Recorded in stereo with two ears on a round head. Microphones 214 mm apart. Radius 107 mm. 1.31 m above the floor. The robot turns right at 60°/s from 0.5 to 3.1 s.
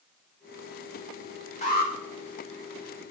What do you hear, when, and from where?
1.6 s an alarm: 30° left (ahead or behind), 1.7 m; by 1.9 s 45° left (ahead or behind), 1.7 m